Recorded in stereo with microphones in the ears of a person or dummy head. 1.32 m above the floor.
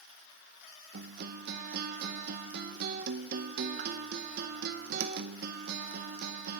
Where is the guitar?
55° right (ahead or behind), 0.6 m.